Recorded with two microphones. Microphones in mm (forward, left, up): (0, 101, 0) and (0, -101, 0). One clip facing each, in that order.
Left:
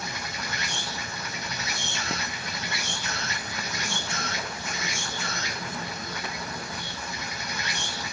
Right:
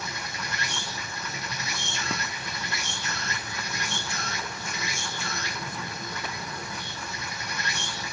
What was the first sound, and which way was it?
An insect, 75° left (ahead or behind).